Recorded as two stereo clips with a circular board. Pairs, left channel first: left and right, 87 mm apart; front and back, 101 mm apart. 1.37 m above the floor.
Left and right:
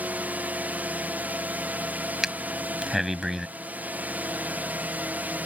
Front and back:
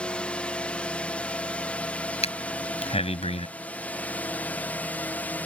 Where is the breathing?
5° right.